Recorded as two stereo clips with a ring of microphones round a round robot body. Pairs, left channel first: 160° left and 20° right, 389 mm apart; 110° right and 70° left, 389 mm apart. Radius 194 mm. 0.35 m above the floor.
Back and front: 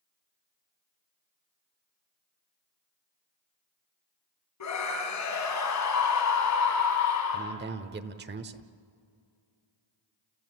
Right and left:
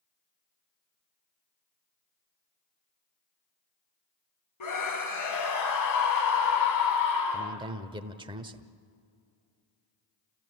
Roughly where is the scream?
Behind right.